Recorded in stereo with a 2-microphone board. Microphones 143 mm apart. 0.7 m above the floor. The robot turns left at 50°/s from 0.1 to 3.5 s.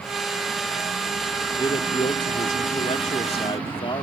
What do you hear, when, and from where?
1.6 s a man speaking: 145° left; by 4.0 s 50° left